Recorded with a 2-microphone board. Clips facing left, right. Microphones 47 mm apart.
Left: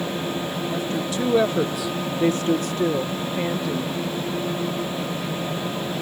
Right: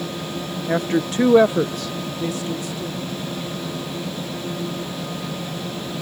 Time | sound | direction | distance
0.7 | a woman speaking | 55° right (ahead or behind) | ?